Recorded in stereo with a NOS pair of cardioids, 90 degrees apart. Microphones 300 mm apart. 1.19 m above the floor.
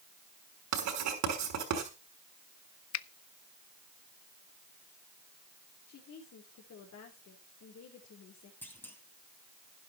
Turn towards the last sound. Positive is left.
turn(degrees=5)